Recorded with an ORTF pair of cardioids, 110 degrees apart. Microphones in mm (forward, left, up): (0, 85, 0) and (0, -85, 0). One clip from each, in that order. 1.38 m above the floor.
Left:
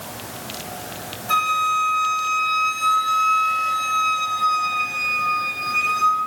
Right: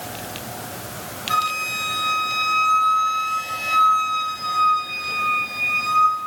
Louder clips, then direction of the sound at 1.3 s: Left 3 dB; 65° left.